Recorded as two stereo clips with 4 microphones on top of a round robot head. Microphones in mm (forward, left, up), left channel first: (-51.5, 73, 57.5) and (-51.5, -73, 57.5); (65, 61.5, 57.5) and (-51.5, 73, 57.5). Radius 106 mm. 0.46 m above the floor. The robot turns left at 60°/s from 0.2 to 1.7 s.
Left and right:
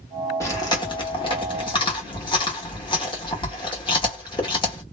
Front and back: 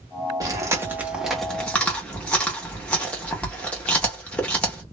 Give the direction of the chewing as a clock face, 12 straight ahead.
7 o'clock.